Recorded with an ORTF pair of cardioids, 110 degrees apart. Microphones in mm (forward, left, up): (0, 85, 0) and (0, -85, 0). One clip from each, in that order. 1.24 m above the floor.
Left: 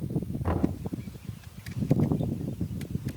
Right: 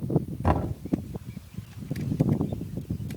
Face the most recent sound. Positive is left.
turn(degrees=-55)